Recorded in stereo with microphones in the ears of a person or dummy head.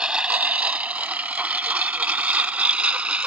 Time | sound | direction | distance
0.0 | a lawn mower | 5° right (ahead or behind) | ?